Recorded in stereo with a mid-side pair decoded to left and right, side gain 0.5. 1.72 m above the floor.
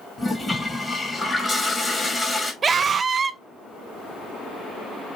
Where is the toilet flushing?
20° left, 1.7 m.